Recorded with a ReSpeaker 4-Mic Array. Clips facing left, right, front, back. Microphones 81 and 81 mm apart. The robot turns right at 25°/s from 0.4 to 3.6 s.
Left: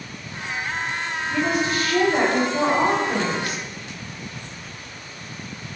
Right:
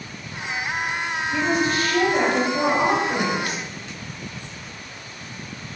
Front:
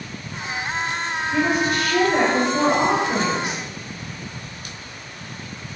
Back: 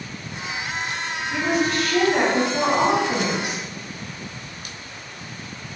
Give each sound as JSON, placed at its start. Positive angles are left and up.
{"t": 1.3, "sound": "a woman speaking", "azimuth_deg": 55, "distance_m": 1.0}